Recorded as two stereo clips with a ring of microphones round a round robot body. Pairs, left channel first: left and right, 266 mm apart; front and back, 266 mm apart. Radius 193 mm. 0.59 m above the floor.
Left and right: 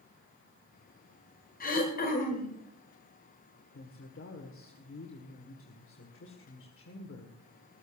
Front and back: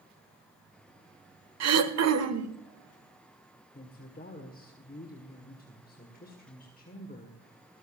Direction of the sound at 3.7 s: 55° left.